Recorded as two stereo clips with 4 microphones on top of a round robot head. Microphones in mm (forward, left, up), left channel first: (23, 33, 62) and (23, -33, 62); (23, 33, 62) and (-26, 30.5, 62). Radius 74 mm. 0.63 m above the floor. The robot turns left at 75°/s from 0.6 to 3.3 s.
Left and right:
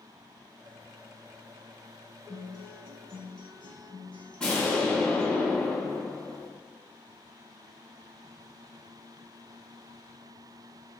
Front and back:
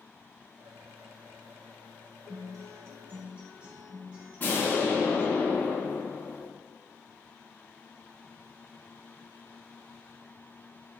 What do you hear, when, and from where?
2.3 s a guitar: 165° right, 0.8 m; by 5.4 s 120° left, 0.8 m
4.4 s an explosion: 20° left, 1.3 m